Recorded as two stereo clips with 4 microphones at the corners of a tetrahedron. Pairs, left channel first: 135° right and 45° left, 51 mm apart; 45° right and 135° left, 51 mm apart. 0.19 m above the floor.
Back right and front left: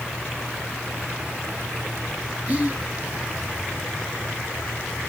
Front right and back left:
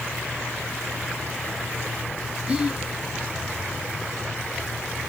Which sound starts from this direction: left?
Whispering, at 2.5 s.